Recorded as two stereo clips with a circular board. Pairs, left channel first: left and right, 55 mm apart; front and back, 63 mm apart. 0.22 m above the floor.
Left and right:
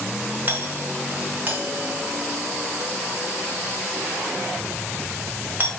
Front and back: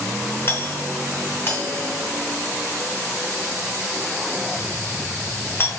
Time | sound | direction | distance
0.5 | a doorbell | 45° right | 4 m